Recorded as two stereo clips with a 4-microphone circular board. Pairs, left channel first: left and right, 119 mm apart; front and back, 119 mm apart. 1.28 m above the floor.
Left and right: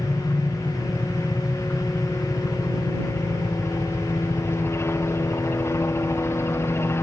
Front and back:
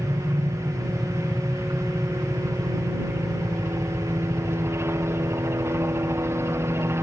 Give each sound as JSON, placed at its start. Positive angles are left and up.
{"t": 0.0, "sound": "a helicopter", "azimuth_deg": 135}